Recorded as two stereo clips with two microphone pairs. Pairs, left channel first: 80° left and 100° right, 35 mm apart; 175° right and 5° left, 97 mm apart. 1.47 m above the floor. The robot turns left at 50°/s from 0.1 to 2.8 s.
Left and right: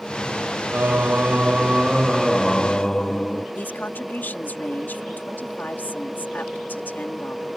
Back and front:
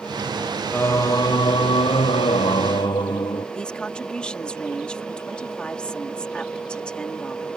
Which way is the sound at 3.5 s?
105° left.